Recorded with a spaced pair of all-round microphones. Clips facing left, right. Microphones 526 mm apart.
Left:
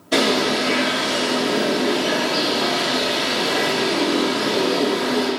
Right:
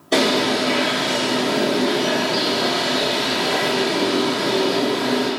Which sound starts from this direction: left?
A bird, at 0.1 s.